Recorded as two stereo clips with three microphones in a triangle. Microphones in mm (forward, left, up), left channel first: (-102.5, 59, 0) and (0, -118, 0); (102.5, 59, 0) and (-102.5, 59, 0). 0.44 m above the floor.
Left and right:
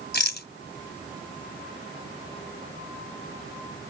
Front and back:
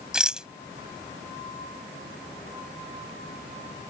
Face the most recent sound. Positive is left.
turn(degrees=95)